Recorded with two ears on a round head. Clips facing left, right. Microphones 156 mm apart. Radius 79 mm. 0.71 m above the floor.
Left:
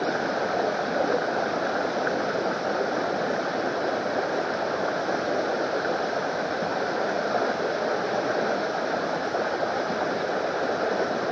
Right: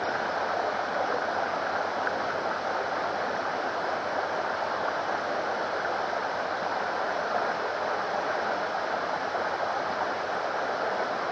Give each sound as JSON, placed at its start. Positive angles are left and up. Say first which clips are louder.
{"t": 0.0, "sound": "running water", "louder": "left 4 dB", "side_deg": 40}